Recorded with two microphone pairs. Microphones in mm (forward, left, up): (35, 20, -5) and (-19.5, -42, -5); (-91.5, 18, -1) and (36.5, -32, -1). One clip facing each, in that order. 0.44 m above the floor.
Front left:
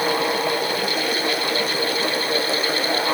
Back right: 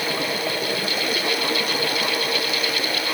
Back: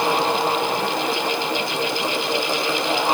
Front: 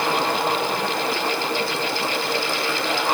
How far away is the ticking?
No ticking in this recording.